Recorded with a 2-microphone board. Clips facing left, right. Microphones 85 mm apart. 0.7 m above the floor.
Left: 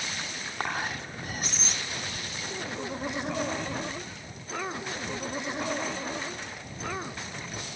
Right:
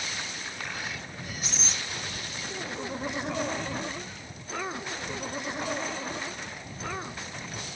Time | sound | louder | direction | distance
0.6 | whispering | left 7 dB | 45° left (ahead or behind) | ?